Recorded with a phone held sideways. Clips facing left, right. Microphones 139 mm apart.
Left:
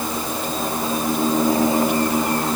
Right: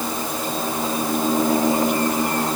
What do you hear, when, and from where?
Only background noise.